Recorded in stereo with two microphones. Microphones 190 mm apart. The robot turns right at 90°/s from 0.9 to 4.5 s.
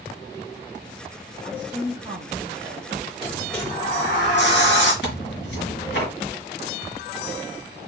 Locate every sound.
1.4 s a woman speaking: 155° left, 2.5 m; by 3.1 s 55° right, 2.5 m
3.2 s a sliding door: 25° right, 1.8 m; by 4.9 s 90° left, 1.8 m
5.0 s tearing paper: 75° left (ahead or behind), 2.5 m